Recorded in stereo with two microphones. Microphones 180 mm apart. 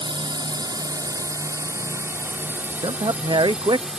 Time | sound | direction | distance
0.0 | a drone | 25° right (ahead or behind) | ?
2.8 | a man speaking | 25° right (ahead or behind) | ?